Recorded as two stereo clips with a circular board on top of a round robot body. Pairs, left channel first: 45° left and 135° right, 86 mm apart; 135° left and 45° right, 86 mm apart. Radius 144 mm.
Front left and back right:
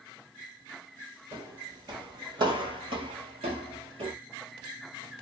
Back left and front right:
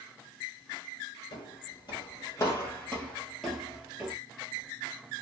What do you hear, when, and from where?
1.3 s footsteps: 170° left, 1.6 m; by 4.1 s 115° right, 1.2 m